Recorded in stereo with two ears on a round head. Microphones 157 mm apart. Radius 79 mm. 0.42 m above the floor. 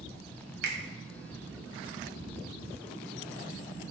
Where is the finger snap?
65° right (ahead or behind), 1.6 m.